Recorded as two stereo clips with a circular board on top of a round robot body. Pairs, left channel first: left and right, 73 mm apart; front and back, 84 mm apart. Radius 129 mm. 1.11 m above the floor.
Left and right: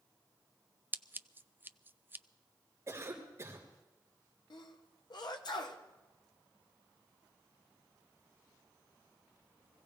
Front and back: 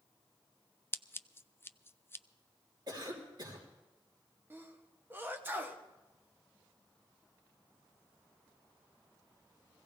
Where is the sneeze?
115° left, 1.4 m.